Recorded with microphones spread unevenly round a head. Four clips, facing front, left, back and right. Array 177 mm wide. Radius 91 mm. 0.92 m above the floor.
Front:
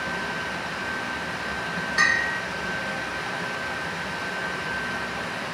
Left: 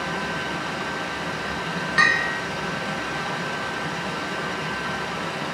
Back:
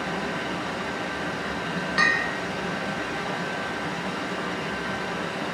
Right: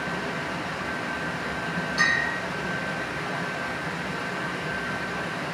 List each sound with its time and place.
0.0 s running water: 135° left, 4 m
2.0 s a bell: 85° left, 1.8 m